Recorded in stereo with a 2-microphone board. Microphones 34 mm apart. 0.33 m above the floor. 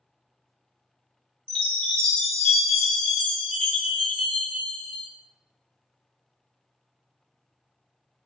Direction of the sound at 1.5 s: 30° left (ahead or behind).